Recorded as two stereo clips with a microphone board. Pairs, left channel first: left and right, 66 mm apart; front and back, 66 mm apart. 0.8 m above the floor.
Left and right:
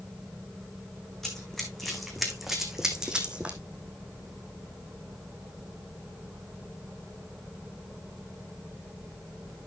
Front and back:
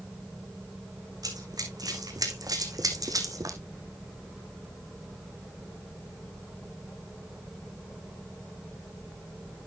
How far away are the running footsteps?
About 3 m.